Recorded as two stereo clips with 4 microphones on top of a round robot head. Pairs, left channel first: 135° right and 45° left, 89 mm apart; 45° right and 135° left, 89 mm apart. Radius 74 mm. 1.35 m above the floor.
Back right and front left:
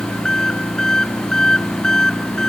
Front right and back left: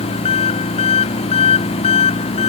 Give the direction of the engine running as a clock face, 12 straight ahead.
2 o'clock.